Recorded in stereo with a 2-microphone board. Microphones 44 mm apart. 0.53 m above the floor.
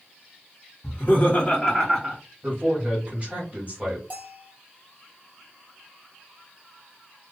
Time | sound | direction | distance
0.8 | laughter | 50° left (ahead or behind) | 1.9 m
2.4 | a man speaking | 30° right (ahead or behind) | 1.8 m
4.1 | a bell | 40° right (ahead or behind) | 1.4 m